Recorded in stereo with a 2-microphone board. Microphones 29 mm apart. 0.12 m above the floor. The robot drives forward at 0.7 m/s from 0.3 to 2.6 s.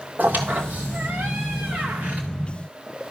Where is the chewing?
No chewing in this recording.